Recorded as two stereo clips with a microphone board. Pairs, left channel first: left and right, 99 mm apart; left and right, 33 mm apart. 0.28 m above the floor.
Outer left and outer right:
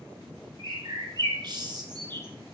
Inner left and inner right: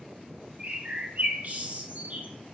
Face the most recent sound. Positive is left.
turn(degrees=-50)  # may be behind; listen again after turning